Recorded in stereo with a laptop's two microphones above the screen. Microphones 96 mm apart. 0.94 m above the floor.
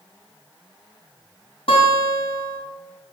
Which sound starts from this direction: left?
A guitar, at 1.7 s.